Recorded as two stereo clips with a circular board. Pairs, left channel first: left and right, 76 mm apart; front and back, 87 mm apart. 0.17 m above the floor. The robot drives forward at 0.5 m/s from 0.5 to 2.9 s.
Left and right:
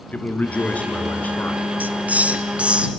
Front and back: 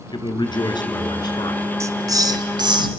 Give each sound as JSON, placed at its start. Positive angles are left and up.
{"t": 0.1, "sound": "a man speaking", "azimuth_deg": 20, "distance_m": 2.5}
{"t": 1.8, "sound": "a hiss", "azimuth_deg": -145, "distance_m": 0.7}